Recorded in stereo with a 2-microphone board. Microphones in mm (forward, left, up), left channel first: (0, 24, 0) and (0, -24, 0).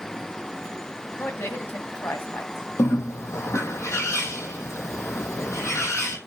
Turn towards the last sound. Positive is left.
turn(degrees=85)